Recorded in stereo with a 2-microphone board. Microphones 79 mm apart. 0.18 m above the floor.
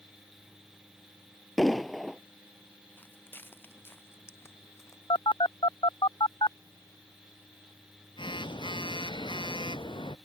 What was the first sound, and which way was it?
An explosion, centre (ahead or behind).